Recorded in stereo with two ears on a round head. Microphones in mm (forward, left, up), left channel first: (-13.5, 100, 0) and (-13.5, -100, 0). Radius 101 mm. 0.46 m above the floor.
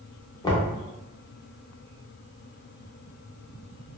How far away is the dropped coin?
No dropped coin in this recording.